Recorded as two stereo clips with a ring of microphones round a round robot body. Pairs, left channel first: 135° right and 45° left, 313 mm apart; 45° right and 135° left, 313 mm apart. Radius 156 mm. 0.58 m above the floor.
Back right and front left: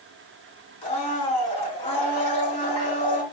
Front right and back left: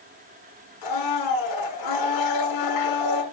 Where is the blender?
60° right, 6 m.